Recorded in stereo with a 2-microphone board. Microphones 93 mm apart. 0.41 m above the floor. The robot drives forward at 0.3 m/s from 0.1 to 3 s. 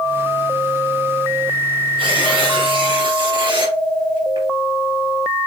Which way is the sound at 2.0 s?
65° right (ahead or behind).